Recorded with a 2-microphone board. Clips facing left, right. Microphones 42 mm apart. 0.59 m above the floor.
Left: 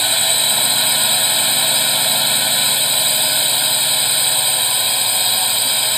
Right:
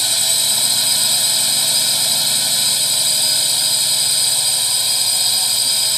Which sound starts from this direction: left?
A drone, at 0.0 s.